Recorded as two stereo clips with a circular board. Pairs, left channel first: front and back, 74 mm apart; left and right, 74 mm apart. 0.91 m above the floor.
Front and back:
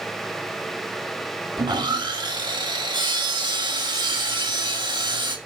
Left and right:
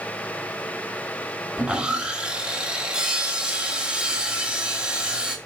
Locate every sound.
1.6 s sawing: 165° right, 1.4 m